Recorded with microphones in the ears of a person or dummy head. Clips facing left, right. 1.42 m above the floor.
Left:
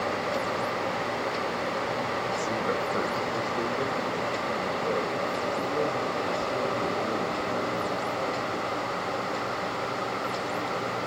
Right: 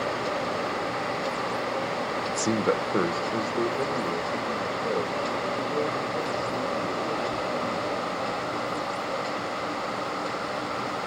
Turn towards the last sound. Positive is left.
turn(degrees=5)  # may be behind; listen again after turning